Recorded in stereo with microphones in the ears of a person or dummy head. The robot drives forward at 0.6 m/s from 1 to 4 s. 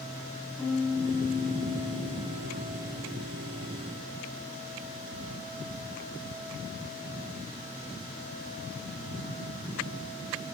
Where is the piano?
10° left (ahead or behind), 9 m.